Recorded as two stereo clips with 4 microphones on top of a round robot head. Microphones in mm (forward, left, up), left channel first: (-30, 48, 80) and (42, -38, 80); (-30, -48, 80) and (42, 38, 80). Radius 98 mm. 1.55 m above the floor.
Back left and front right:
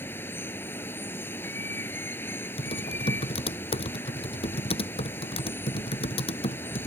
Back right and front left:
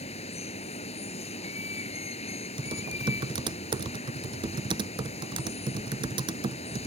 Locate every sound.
0.0 s running water: 160° right
2.6 s typing on a keyboard: 95° left